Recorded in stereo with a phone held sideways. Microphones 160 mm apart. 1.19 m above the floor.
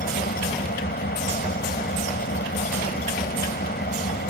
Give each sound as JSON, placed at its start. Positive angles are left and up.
{"t": 0.0, "sound": "an engine running", "side_deg": 80}